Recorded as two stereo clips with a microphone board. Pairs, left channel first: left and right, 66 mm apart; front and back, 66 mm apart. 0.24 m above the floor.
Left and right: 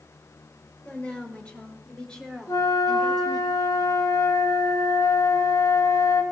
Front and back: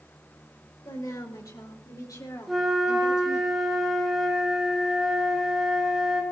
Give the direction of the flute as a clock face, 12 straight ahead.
9 o'clock.